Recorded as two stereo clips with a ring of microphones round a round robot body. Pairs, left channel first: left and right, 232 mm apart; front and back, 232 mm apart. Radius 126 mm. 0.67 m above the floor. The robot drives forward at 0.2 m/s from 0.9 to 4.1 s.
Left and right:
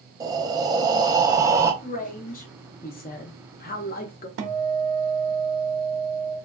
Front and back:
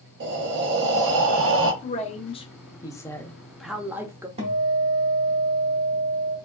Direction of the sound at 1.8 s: 45° left.